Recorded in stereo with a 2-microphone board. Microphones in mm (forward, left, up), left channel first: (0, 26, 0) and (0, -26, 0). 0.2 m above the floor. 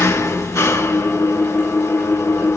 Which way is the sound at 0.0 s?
60° left (ahead or behind).